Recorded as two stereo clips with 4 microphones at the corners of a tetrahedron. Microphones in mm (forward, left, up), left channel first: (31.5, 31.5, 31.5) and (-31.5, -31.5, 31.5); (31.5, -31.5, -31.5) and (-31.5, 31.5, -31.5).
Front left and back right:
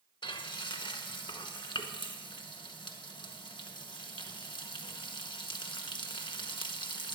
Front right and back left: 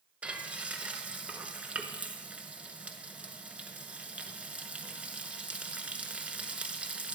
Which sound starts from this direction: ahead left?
Frying, at 0.2 s.